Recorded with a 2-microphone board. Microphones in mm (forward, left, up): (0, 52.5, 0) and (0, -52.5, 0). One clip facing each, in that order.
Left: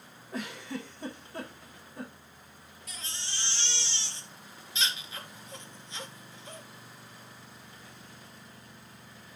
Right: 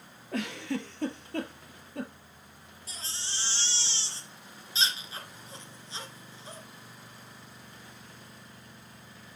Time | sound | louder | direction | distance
0.3 | a giggle | right 5 dB | 80° right | 1.6 m
2.9 | a baby crying | even | 35° right (ahead or behind) | 2 m